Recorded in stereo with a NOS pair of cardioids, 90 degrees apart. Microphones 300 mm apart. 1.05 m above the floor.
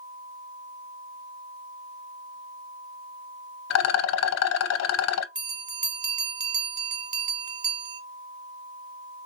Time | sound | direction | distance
3.7 | a rattle | 60° left | 0.6 m
5.3 | a bell | 30° right | 1.3 m